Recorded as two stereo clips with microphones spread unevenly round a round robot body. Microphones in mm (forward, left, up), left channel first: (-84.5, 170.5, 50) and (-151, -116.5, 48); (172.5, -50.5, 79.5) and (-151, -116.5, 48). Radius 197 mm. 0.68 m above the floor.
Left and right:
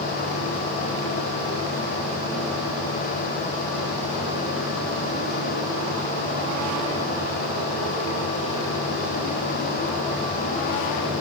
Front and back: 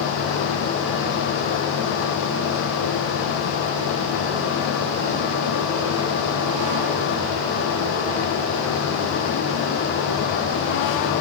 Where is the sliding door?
No sliding door in this recording.